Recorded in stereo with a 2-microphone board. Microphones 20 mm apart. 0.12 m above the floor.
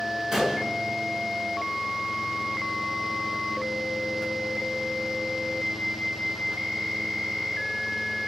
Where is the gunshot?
15° right (ahead or behind), 1.2 m.